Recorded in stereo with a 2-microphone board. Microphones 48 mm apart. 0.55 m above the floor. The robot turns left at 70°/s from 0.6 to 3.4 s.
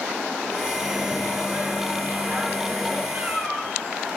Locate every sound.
0.7 s a microwave: 5° right (ahead or behind), 0.8 m; by 3.0 s centre (ahead or behind), 0.8 m
3.1 s a cat meowing: 30° right (ahead or behind), 0.9 m; by 3.7 s 15° right (ahead or behind), 0.9 m